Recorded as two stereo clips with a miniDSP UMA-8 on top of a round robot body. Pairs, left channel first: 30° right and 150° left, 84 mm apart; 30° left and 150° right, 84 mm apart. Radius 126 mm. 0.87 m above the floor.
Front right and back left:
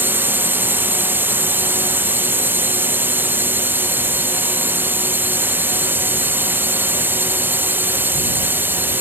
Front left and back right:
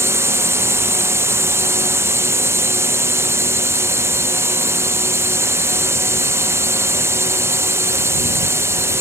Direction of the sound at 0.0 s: 165° right.